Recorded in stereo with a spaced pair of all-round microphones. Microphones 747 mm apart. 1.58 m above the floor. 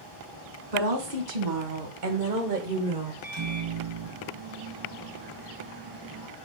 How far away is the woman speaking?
About 2 m.